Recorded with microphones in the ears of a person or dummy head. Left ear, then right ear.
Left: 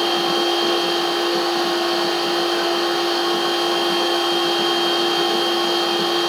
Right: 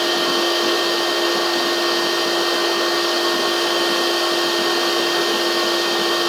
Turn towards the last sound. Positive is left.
turn(degrees=-40)  # may be behind; listen again after turning